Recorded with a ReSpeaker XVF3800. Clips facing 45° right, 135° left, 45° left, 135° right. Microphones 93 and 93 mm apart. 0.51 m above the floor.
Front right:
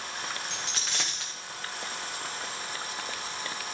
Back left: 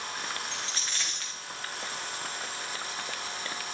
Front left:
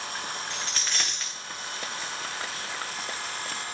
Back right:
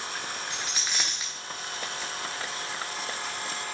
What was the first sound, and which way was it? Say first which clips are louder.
A dropped coin: front right 1 dB, even; 55° right.